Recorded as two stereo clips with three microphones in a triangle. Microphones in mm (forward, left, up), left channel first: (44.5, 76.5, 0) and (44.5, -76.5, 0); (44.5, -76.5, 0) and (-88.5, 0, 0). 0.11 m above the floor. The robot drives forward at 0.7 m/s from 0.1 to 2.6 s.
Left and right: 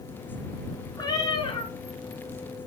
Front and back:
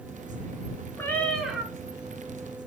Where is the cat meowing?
40° left, 1.0 m; by 1.7 s 85° left, 0.8 m.